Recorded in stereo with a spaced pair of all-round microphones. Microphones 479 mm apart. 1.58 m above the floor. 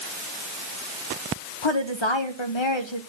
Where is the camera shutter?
I don't hear a camera shutter.